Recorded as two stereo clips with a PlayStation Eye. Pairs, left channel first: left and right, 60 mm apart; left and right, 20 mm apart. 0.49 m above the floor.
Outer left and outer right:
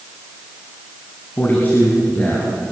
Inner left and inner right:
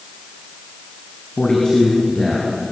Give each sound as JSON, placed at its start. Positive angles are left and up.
{"t": 1.4, "sound": "a man speaking", "side_deg": 30, "distance_m": 4.5}